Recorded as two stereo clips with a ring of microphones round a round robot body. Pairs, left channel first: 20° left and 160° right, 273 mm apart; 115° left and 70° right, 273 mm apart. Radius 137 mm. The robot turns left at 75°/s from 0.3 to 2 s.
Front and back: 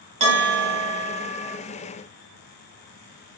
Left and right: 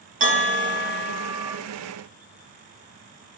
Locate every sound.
0.2 s a bell: 105° right, 1.1 m; by 1.6 s 160° left, 1.1 m